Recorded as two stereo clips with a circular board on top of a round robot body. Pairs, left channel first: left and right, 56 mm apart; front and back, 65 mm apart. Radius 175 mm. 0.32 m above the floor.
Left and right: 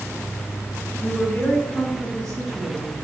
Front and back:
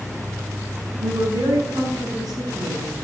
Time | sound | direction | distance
1.0 | a woman speaking | 165° left | 5 m